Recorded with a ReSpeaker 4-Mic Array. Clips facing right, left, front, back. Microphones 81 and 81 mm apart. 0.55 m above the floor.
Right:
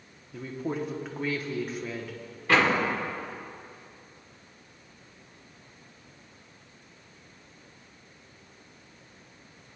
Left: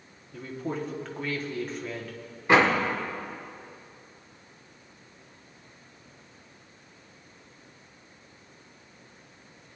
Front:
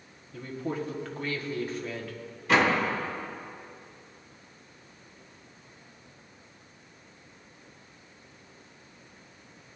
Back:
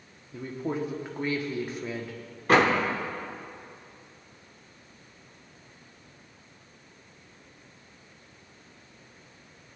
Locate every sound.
0.3 s a woman speaking: 160° right, 1.0 m
2.5 s a door slam: 155° left, 1.3 m